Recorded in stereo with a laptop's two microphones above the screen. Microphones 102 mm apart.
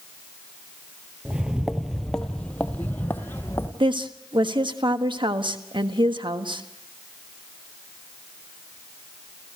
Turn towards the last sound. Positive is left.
turn(degrees=-55)  # may be behind; listen again after turning